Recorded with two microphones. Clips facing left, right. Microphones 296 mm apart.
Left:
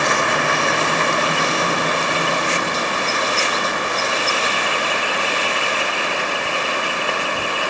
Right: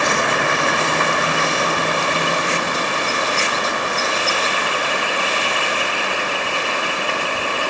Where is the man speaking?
No man speaking in this recording.